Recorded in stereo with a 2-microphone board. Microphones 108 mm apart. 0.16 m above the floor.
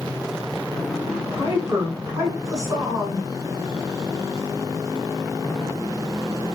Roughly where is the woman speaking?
Right.